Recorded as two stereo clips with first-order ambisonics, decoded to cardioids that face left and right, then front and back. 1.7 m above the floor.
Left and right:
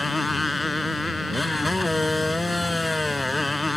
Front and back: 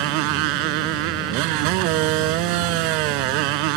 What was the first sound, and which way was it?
A motorcycle, 175° left.